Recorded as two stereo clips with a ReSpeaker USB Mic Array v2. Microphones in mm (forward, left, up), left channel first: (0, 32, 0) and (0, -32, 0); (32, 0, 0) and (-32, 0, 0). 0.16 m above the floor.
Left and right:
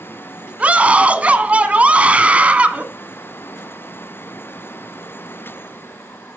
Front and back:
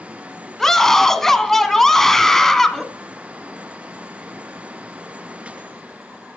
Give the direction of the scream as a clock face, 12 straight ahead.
2 o'clock.